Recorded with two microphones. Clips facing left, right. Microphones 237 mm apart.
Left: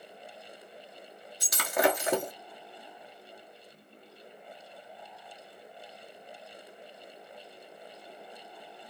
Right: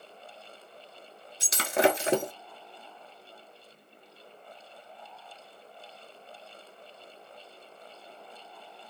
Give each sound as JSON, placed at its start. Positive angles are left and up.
{"t": 1.4, "sound": "breaking glass", "side_deg": -25, "distance_m": 0.6}